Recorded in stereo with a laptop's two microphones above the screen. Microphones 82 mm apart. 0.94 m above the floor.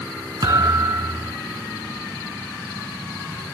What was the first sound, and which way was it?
A thud, 50° right (ahead or behind).